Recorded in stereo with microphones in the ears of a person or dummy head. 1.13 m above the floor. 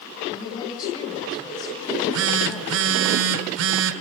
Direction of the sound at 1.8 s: 65° right (ahead or behind).